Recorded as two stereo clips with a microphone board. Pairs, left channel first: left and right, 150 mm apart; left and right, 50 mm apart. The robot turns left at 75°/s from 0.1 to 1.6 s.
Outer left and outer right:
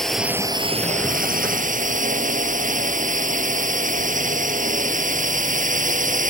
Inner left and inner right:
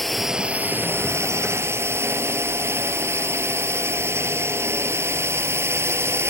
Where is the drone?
5° left; by 6.3 s 110° right.